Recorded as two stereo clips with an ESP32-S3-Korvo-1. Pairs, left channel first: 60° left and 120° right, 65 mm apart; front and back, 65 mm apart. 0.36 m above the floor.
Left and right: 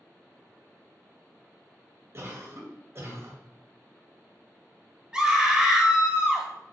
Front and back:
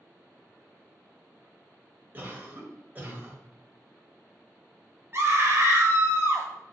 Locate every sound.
2.1 s a cough: 130° right, 1.7 m
5.1 s a scream: 170° left, 1.7 m